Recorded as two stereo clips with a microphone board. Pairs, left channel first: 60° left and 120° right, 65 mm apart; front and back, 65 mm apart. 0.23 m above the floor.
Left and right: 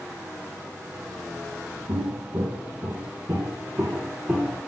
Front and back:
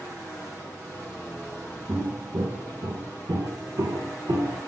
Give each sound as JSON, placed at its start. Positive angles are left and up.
{"t": 1.9, "sound": "footsteps", "azimuth_deg": -135, "distance_m": 1.2}